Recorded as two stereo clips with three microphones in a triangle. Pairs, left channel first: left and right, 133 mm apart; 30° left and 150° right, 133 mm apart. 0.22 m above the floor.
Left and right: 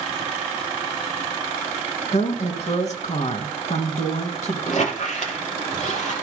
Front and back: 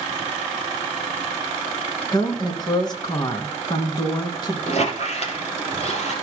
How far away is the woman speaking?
About 2 m.